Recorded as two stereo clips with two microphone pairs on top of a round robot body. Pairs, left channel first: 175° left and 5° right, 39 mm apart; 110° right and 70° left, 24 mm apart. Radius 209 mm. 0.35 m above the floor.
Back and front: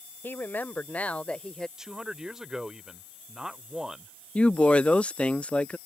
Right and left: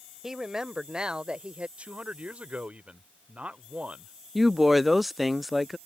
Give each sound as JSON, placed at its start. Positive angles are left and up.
{"t": 0.2, "sound": "a woman speaking", "azimuth_deg": 140}
{"t": 1.8, "sound": "a man speaking", "azimuth_deg": 70}
{"t": 4.3, "sound": "a woman speaking", "azimuth_deg": 150}